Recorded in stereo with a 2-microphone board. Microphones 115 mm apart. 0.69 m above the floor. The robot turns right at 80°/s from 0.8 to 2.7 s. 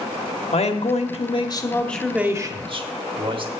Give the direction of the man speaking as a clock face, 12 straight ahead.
9 o'clock.